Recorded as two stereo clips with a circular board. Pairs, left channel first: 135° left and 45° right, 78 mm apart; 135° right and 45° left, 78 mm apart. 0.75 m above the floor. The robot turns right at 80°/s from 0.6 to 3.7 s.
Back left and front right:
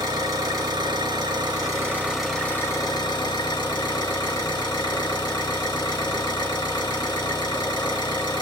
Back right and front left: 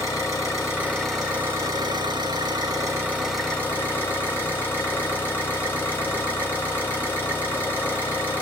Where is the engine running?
85° right, 3 m; by 8.4 s 160° left, 3 m.